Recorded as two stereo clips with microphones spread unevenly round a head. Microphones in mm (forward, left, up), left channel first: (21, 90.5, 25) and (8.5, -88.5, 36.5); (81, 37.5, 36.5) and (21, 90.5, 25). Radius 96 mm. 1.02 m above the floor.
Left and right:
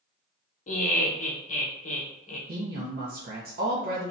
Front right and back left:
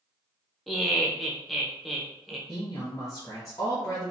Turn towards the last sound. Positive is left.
turn(degrees=-95)